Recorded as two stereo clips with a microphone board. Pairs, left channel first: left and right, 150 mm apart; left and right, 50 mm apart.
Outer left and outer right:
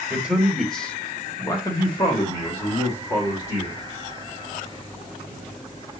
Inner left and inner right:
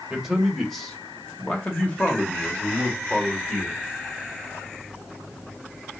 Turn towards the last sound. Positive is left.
turn(degrees=35)  # may be behind; listen again after turning